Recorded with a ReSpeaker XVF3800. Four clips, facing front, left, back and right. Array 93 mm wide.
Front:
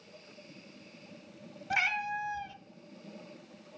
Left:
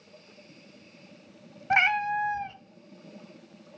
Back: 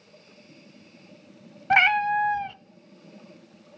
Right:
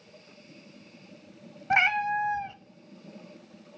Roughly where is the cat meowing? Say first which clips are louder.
Even, back 12 dB; behind.